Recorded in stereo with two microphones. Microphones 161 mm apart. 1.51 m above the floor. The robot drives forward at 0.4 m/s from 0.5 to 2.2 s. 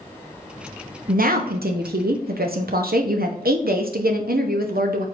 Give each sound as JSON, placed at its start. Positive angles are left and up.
{"t": 1.1, "sound": "a woman speaking", "side_deg": -65, "distance_m": 0.7}